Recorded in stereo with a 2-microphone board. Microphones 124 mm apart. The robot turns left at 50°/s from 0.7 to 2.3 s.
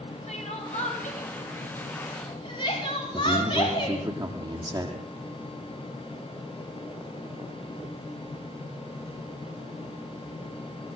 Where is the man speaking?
35° right (ahead or behind), 5.5 m.